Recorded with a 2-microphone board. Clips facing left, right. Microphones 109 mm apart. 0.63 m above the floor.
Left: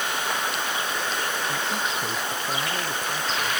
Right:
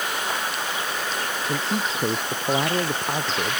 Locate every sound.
1.5 s a man speaking: 40° right (ahead or behind); by 3.6 s 45° right (ahead or behind)